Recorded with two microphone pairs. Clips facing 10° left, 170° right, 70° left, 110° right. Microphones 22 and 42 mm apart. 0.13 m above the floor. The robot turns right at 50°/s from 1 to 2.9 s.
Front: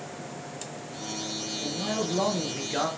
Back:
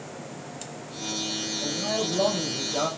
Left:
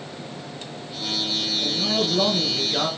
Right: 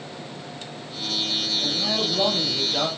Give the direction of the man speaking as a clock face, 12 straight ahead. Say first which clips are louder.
Back 2 dB, left 3 dB; 2 o'clock.